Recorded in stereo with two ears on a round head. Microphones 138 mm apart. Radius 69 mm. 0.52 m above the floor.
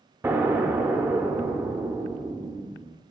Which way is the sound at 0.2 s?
15° right (ahead or behind).